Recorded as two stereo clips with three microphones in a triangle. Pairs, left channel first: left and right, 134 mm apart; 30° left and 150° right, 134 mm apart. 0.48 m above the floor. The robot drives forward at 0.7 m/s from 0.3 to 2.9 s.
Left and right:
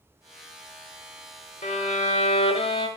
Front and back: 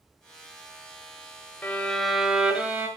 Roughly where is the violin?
Left.